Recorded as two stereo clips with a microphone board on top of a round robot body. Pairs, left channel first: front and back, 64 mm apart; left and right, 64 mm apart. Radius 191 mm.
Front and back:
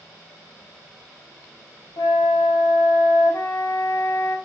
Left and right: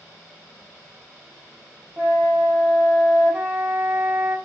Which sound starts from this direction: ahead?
A flute, at 2.0 s.